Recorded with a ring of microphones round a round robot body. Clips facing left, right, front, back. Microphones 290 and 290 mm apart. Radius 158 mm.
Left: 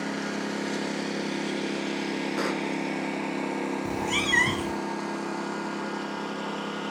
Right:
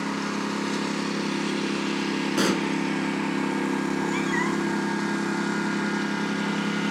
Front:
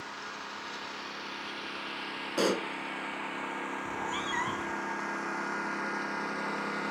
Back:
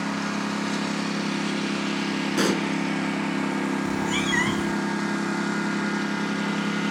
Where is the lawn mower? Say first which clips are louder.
Right 2 dB, back 20 dB; 165° right; by 6.9 s 140° right.